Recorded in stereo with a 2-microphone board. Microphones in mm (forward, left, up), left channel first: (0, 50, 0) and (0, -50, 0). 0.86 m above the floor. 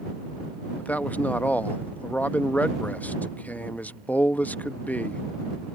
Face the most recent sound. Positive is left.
turn(degrees=15)  # may be behind; listen again after turning